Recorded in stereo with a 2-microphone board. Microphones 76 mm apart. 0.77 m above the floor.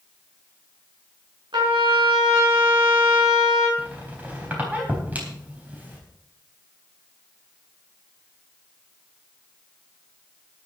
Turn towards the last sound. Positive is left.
turn(degrees=-25)  # may be behind; listen again after turning